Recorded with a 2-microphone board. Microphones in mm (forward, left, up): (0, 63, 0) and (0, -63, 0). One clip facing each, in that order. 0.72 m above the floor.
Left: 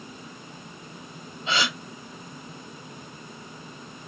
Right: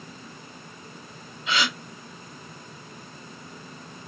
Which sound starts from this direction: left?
A gasp, at 1.5 s.